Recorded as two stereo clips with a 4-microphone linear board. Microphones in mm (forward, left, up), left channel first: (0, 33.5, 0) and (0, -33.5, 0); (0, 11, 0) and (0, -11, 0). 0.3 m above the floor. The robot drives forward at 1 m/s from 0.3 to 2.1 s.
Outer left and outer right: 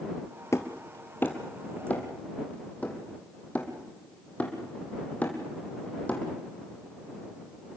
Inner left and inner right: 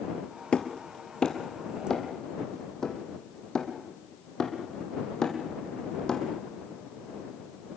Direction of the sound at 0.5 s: 45° left (ahead or behind).